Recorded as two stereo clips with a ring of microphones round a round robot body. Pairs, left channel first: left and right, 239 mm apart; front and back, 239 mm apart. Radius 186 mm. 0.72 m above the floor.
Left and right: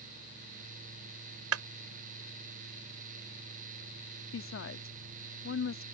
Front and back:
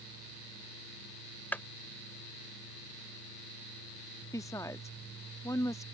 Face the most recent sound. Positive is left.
turn(degrees=75)